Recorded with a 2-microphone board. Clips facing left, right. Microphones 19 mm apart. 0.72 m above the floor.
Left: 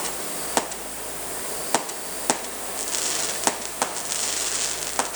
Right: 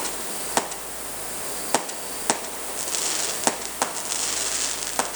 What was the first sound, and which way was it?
Only background noise.